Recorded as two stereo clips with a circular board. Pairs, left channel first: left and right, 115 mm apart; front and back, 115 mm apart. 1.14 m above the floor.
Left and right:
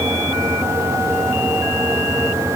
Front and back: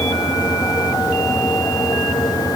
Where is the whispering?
No whispering in this recording.